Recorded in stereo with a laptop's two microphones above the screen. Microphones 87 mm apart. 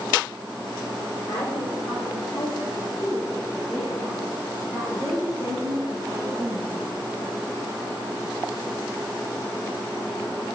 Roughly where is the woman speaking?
Left.